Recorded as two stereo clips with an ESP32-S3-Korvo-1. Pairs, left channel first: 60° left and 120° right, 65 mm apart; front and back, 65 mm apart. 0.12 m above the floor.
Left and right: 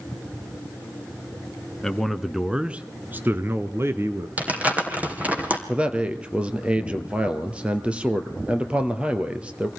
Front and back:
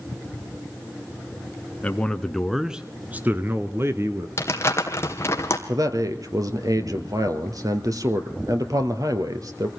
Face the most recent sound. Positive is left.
turn(degrees=170)